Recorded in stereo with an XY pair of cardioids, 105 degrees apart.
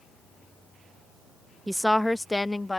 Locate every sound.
1.7 s a woman speaking: 5° right; by 2.8 s 15° left